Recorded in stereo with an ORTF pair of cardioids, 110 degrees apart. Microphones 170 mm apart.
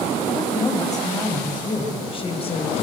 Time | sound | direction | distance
0.3 | a woman speaking | 15° left | 6.5 m